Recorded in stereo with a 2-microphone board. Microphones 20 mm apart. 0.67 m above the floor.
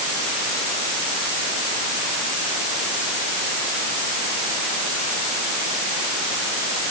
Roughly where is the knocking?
I don't hear knocking.